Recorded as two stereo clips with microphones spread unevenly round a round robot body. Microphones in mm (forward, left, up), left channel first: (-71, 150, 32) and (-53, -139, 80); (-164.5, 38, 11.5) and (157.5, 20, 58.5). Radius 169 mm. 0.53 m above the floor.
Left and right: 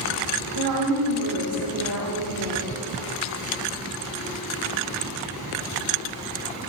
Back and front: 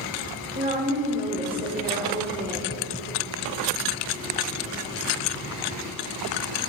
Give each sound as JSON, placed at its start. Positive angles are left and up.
{"t": 0.6, "sound": "a woman speaking", "azimuth_deg": -70, "distance_m": 1.6}